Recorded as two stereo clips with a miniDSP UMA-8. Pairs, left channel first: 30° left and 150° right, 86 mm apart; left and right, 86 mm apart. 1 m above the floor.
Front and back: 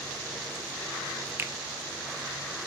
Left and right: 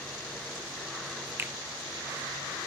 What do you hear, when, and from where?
1.4 s a finger snap: 125° right, 0.5 m